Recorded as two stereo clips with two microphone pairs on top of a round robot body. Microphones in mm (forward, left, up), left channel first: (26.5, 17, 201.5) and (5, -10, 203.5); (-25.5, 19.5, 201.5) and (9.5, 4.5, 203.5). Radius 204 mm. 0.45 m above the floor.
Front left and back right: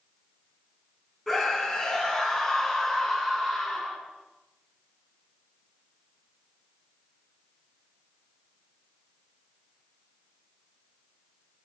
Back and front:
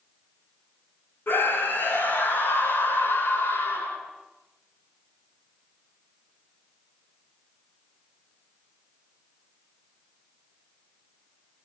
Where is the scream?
140° left, 8 m.